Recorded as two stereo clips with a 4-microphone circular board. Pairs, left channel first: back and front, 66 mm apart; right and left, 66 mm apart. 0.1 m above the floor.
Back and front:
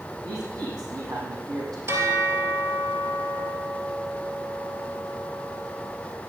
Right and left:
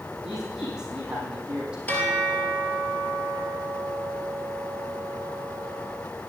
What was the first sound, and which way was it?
A man speaking, 10° left.